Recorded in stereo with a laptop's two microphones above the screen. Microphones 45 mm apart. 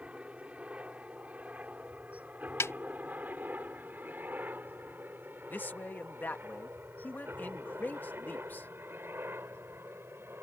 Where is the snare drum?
70° left (ahead or behind).